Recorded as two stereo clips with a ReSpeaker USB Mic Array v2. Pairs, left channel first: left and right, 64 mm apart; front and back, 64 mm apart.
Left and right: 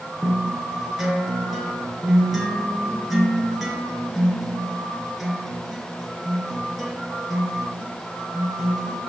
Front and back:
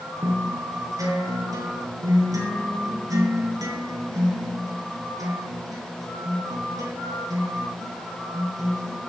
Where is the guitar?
175° right, 4 m.